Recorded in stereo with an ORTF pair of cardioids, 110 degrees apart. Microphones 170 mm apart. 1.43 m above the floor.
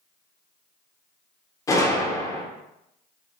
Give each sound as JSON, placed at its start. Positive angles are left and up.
{"t": 1.7, "sound": "a gunshot", "azimuth_deg": 20, "distance_m": 0.6}